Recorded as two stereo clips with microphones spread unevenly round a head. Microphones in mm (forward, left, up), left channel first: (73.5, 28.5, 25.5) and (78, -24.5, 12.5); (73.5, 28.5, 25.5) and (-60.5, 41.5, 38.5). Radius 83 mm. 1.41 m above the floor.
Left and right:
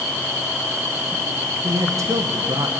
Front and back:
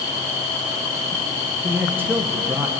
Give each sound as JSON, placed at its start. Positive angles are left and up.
{"t": 1.6, "sound": "a man speaking", "azimuth_deg": -105, "distance_m": 1.1}